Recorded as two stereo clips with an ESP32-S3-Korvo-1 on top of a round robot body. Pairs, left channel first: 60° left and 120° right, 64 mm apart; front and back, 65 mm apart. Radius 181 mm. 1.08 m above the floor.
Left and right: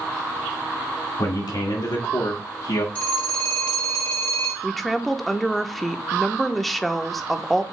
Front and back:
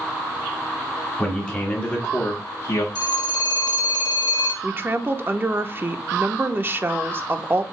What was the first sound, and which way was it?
A man speaking, 70° left.